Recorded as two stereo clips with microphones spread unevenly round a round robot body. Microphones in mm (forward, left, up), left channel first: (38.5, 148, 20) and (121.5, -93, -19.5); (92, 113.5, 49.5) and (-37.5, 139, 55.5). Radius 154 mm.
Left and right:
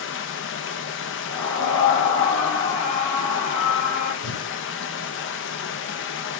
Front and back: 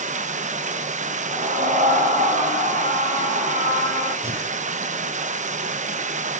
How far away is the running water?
About 0.7 m.